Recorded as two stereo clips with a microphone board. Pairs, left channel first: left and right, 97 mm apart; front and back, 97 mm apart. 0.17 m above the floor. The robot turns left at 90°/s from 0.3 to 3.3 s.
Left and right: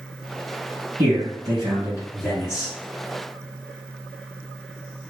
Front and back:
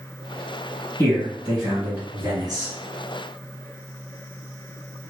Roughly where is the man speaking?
Ahead right.